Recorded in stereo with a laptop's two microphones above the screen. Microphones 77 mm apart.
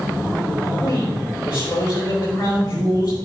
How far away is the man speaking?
About 3.5 m.